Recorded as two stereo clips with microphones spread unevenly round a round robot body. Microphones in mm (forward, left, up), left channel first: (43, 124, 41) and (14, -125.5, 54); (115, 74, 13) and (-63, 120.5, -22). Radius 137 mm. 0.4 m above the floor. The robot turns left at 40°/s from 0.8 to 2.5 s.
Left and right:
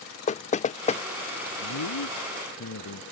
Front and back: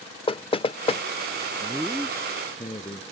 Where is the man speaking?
85° left; by 3.0 s 50° left.